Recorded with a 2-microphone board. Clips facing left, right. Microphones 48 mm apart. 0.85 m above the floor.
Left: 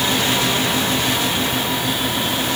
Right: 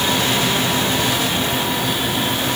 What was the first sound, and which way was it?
Only background noise.